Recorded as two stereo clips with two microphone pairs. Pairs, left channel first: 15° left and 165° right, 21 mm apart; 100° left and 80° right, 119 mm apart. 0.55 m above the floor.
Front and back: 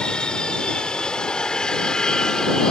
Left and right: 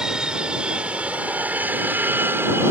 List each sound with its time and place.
0.0 s an aircraft: straight ahead; by 2.7 s 20° right